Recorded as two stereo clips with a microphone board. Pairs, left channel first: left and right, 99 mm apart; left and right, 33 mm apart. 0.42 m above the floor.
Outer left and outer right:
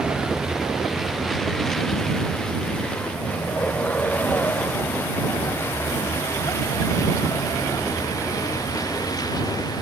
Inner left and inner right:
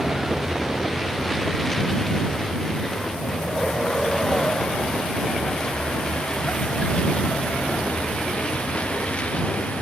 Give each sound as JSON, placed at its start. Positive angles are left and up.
{"t": 0.0, "sound": "a vehicle", "side_deg": -5}